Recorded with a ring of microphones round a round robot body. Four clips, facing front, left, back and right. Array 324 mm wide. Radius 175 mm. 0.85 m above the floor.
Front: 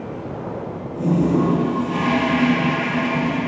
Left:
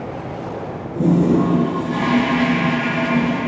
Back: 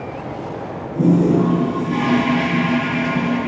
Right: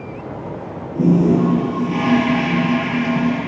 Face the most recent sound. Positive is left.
turn(degrees=-125)